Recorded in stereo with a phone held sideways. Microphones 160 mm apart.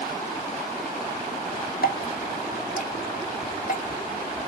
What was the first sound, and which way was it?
Dripping, 60° left (ahead or behind).